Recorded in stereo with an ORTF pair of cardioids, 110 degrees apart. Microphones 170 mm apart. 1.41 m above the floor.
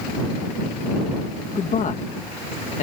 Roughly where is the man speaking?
Ahead left.